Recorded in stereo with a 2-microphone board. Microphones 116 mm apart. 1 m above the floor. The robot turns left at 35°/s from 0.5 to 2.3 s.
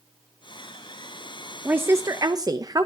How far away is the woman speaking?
About 0.7 m.